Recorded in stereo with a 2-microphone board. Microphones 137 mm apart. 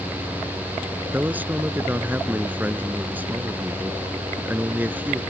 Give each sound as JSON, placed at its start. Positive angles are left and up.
{"t": 1.1, "sound": "a man speaking", "side_deg": -15}